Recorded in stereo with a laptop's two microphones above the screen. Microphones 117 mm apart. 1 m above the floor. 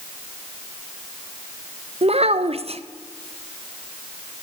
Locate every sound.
2.0 s a child speaking: 60° right (ahead or behind), 0.6 m